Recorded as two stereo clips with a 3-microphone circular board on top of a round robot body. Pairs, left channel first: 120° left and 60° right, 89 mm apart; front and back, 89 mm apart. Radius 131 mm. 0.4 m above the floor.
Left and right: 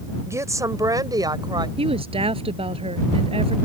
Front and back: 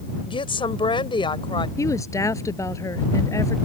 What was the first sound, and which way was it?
A woman speaking, 5° right.